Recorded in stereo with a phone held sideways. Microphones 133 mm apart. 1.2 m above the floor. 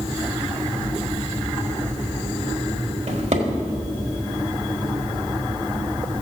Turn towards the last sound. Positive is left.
turn(degrees=-60)  # may be behind; listen again after turning